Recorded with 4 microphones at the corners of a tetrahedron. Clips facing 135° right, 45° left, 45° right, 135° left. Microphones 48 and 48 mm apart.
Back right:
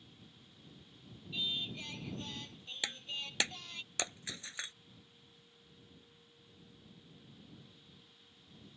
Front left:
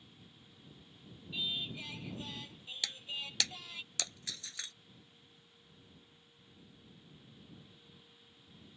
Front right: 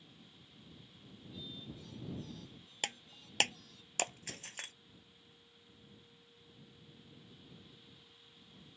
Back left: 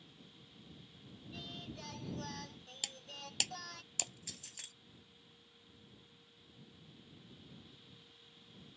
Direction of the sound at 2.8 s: 75° right.